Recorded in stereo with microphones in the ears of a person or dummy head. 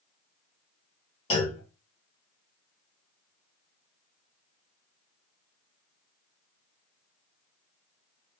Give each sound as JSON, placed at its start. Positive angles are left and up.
{"t": 1.3, "sound": "a clunk", "side_deg": 35, "distance_m": 1.7}